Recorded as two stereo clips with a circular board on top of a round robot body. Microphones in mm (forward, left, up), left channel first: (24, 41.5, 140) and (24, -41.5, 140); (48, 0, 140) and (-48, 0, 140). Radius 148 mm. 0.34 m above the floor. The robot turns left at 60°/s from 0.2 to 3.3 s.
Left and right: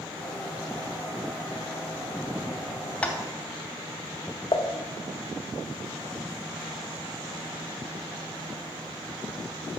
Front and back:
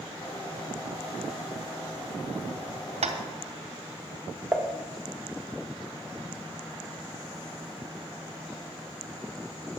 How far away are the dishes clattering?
About 0.9 m.